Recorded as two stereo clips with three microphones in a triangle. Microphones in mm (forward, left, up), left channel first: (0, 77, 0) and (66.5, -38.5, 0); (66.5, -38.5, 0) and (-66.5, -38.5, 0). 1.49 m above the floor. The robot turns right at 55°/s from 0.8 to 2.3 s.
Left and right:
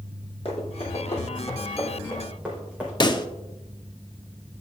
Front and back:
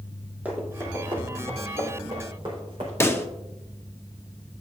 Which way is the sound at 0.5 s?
105° left.